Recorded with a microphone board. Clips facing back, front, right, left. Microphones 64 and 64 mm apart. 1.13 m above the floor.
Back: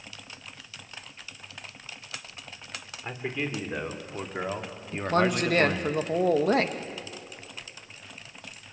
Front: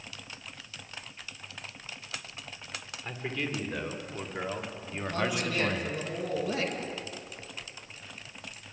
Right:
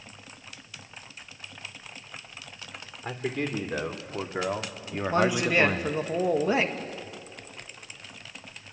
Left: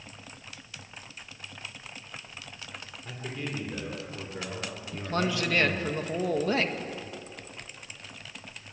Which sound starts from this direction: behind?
A man speaking, at 4.9 s.